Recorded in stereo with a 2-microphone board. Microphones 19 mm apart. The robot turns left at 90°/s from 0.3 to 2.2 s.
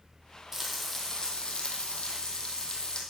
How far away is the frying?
About 1.7 m.